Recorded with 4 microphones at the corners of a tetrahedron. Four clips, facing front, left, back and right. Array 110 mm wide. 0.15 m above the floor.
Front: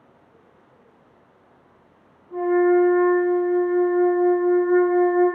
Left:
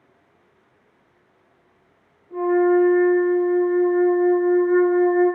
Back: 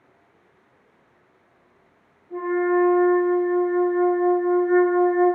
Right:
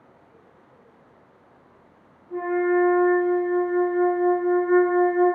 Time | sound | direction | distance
2.3 | a flute | 40° right | 1.2 m